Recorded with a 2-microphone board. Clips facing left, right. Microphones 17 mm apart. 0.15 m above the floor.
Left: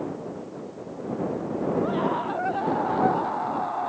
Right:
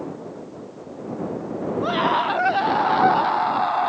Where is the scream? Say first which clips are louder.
Right 5 dB; 70° right (ahead or behind); by 3.9 s 65° right (ahead or behind).